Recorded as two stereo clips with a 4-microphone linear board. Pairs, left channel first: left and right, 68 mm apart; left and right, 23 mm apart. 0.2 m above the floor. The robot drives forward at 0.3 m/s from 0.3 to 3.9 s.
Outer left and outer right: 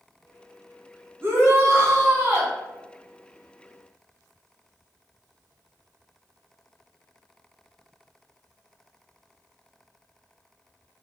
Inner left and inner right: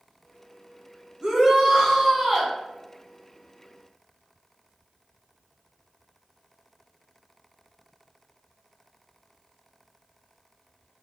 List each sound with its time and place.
1.2 s a shout: 40° right (ahead or behind), 1.5 m